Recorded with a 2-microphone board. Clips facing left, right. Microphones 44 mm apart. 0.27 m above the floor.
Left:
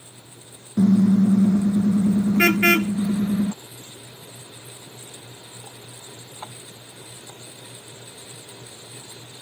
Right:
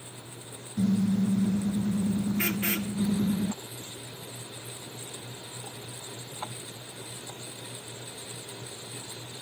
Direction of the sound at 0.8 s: 85° left.